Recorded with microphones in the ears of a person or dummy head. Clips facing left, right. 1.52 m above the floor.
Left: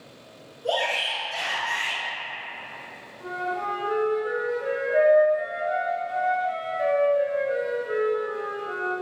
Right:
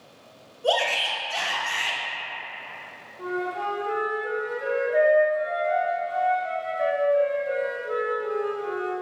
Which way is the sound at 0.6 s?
70° right (ahead or behind).